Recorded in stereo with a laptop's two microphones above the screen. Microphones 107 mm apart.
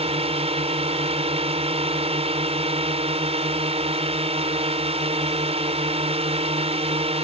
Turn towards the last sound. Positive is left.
turn(degrees=-75)  # may be behind; listen again after turning